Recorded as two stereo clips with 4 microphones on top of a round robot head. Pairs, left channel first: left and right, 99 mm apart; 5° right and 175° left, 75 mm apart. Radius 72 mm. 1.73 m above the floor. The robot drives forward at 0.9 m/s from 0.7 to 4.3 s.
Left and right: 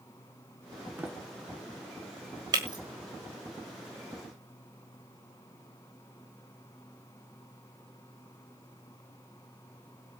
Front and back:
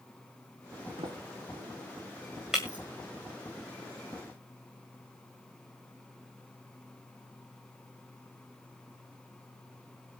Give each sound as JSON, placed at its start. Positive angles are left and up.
{"t": 1.0, "sound": "a sliding door", "azimuth_deg": -160, "distance_m": 1.4}
{"t": 2.5, "sound": "breaking glass", "azimuth_deg": -100, "distance_m": 1.8}